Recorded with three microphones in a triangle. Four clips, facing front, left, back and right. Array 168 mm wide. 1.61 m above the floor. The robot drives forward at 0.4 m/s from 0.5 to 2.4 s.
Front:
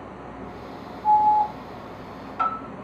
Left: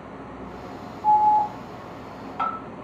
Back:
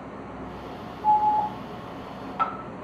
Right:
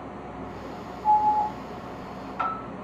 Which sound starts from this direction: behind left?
An alarm, at 1.0 s.